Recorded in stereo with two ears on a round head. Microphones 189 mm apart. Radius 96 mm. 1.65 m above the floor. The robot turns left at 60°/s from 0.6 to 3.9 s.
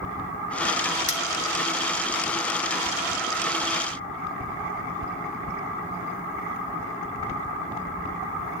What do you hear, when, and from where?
1.1 s cutlery clinking: 35° left (ahead or behind), 1.3 m